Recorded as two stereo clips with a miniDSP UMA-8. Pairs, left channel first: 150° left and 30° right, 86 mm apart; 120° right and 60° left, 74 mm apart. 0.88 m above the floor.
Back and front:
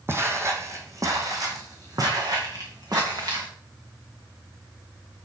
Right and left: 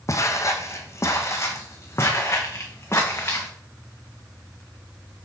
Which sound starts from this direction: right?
Footsteps, at 0.1 s.